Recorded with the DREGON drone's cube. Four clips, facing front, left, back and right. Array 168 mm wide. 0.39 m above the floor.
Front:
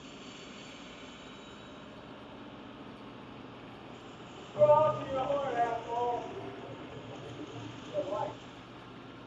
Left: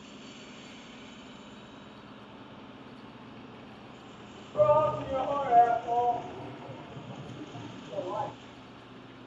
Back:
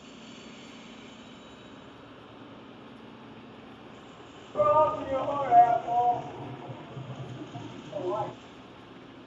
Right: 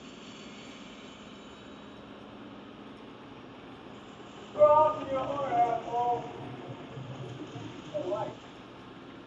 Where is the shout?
155° left, 1.3 m; by 8.3 s 145° left, 3 m.